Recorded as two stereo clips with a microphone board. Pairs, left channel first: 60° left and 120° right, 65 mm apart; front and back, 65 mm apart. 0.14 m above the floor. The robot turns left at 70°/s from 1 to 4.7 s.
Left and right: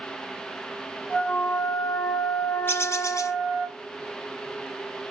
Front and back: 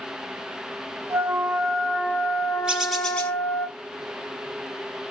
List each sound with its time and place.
1.1 s a flute: 125° left, 1.4 m; by 3.7 s 55° right, 1.4 m
2.7 s a bird: 105° left, 1.8 m; by 3.4 s 55° left, 1.8 m